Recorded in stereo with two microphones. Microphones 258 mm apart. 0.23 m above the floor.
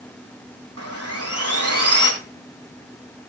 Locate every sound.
0.8 s sawing: 70° right (ahead or behind), 3.5 m